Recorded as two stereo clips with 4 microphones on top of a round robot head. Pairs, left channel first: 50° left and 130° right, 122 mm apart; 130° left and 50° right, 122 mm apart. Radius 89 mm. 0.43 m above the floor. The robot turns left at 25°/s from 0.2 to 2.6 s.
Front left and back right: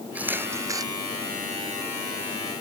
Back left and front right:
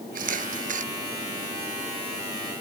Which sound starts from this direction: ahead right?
A camera shutter, at 0.1 s.